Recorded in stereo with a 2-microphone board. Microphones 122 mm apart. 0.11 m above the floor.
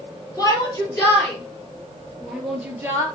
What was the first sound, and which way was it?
A shout, 30° left (ahead or behind).